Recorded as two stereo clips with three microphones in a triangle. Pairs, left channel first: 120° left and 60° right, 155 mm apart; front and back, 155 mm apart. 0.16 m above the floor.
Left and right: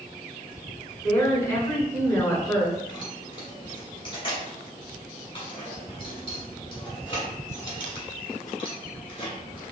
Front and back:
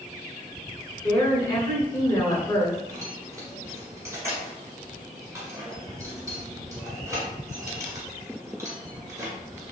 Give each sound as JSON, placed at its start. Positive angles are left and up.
{"t": 1.0, "sound": "a woman speaking", "azimuth_deg": 55, "distance_m": 1.4}
{"t": 2.9, "sound": "keys jangling", "azimuth_deg": 125, "distance_m": 1.3}